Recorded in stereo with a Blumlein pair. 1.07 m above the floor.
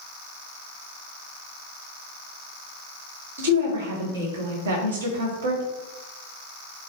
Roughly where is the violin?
I don't hear a violin.